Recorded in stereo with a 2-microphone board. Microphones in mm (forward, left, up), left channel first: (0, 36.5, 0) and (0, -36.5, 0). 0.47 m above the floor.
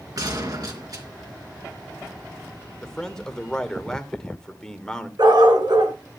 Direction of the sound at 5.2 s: 75° right (ahead or behind).